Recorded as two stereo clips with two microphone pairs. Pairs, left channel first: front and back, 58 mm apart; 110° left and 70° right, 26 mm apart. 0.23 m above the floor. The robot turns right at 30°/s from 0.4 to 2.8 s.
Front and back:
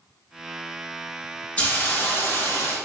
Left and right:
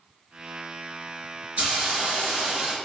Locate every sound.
1.6 s a hiss: 65° right, 1.4 m; by 2.8 s 30° right, 1.4 m